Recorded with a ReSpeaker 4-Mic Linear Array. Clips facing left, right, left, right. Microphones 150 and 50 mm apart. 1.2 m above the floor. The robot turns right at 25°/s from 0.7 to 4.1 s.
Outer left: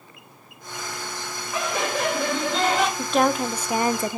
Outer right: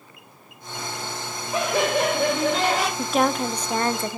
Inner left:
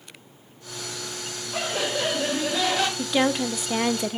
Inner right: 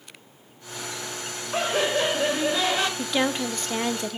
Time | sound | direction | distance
1.5 | laughter | 40° right | 2.5 m
3.0 | a woman speaking | 5° right (ahead or behind) | 0.6 m